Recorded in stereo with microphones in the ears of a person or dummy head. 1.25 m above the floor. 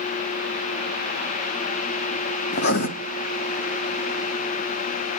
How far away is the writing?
About 1.2 m.